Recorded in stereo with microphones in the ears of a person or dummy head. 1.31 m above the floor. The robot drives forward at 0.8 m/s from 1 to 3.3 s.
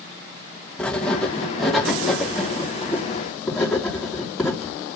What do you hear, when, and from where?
0.8 s writing: 10° left (ahead or behind), 1.2 m; by 5.0 s 5° left (ahead or behind), 3 m